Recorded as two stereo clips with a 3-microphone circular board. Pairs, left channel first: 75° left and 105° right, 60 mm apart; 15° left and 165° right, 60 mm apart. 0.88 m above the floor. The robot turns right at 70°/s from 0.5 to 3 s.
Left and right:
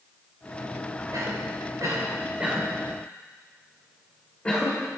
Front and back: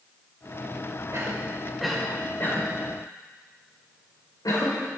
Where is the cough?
125° right, 4 m; by 4.8 s 5° left, 4 m.